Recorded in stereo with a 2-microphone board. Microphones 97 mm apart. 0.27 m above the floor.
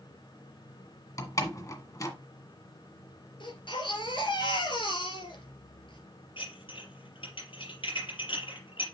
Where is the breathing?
I don't hear breathing.